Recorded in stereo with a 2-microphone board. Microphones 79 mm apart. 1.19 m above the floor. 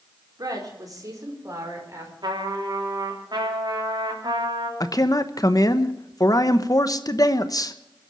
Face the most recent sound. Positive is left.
turn(degrees=50)  # may be behind; listen again after turning